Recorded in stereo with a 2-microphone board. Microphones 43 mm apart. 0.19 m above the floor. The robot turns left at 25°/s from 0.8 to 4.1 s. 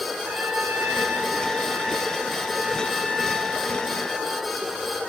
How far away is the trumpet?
About 2 m.